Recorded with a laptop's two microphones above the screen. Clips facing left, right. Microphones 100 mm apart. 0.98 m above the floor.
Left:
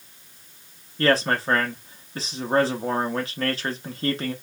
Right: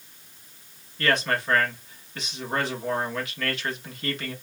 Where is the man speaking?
35° left (ahead or behind), 1.0 m.